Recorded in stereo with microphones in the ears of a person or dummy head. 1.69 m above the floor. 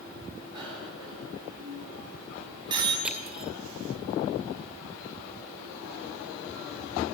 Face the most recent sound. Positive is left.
turn(degrees=-5)  # may be behind; listen again after turning